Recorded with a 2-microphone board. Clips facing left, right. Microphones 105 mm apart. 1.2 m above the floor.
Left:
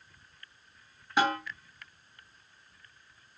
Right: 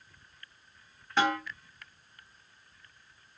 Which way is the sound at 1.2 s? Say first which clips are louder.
Even; 10° left (ahead or behind).